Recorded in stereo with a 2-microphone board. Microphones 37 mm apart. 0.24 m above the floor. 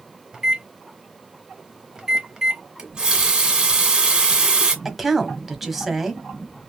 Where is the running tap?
25° right (ahead or behind), 1.3 m.